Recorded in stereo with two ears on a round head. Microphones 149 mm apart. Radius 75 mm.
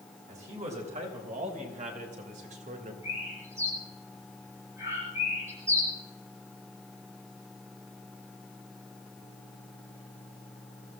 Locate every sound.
0.3 s a man speaking: 45° right (ahead or behind), 5 m; by 2.9 s 50° right (ahead or behind), 2.5 m
3.0 s a bird: 15° right (ahead or behind), 9.5 m